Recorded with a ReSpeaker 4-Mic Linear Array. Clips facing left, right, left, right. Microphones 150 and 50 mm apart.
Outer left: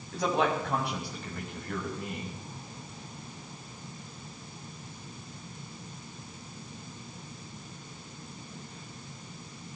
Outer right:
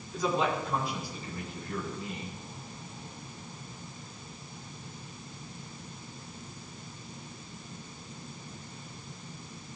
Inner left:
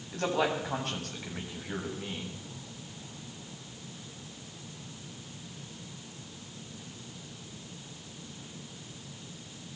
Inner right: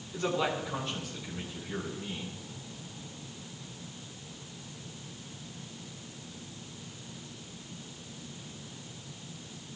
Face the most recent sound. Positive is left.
turn(degrees=60)  # may be behind; listen again after turning